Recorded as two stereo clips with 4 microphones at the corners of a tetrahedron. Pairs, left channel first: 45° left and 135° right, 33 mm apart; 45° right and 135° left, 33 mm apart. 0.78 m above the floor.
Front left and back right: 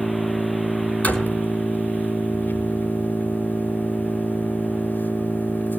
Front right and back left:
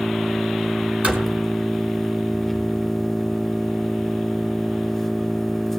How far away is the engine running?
About 2.5 m.